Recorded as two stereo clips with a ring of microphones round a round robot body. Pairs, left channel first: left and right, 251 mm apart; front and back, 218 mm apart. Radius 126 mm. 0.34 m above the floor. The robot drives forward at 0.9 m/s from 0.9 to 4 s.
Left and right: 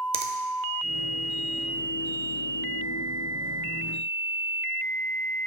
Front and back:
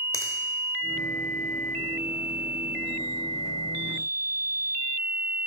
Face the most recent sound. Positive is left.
turn(degrees=-175)